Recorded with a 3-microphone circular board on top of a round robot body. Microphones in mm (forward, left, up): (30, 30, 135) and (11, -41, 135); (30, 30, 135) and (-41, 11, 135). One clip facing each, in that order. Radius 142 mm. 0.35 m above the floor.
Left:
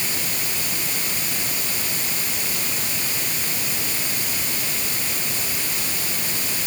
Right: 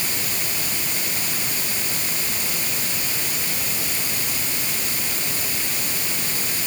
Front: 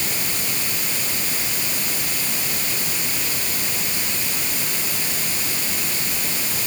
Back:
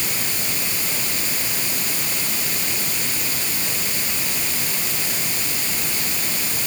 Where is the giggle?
No giggle in this recording.